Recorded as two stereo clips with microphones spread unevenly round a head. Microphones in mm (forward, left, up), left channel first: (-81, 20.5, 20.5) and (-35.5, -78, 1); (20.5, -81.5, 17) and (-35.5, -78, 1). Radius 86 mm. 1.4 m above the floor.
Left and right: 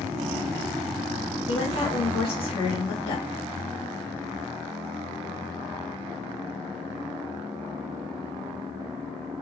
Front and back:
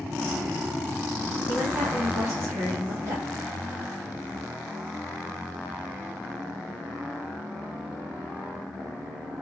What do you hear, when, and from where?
1.5 s a woman speaking: 145° left, 2 m